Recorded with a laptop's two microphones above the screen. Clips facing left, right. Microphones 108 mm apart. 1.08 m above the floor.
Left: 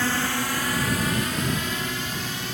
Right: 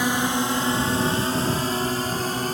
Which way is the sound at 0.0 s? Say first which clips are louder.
Right 3 dB; 15° right (ahead or behind).